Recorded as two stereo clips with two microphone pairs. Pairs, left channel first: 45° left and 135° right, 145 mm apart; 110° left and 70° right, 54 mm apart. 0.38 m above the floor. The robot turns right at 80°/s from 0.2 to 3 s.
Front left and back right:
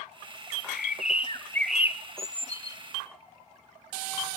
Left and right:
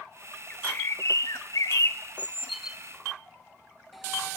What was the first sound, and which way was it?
A bird, 40° left.